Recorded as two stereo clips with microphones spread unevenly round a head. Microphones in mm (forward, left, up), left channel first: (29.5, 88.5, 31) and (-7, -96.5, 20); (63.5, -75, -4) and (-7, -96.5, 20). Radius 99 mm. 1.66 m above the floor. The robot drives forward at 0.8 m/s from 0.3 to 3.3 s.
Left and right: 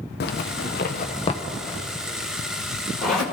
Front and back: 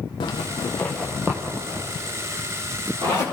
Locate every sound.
0.2 s a zipper: 65° left, 0.8 m; by 3.2 s 165° left, 2 m